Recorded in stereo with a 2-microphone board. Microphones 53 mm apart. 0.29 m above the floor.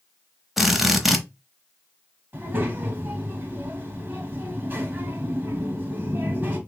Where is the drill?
5° right (ahead or behind), 0.8 m.